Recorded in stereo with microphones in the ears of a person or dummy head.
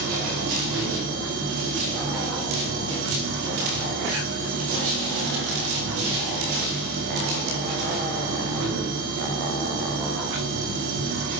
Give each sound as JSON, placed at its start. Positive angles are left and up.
{"t": 0.0, "sound": "a machine running", "side_deg": -75, "distance_m": 6.5}